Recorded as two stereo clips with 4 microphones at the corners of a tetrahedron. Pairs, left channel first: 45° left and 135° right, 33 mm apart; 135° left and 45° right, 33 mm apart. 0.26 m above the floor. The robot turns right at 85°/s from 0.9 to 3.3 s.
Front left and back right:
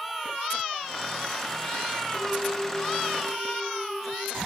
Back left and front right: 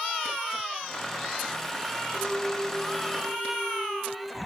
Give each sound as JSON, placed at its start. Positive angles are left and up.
{"t": 2.1, "sound": "a clink", "azimuth_deg": 0, "distance_m": 4.5}